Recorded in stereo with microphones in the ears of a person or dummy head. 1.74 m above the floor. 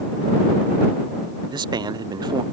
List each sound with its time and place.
1.5 s a man speaking: 25° right (ahead or behind)